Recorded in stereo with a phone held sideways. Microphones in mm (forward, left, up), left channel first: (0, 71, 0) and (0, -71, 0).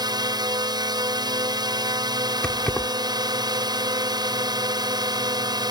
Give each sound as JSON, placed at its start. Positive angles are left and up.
{"t": 0.0, "sound": "a drone", "side_deg": -30}
{"t": 2.4, "sound": "keys jangling", "side_deg": 5}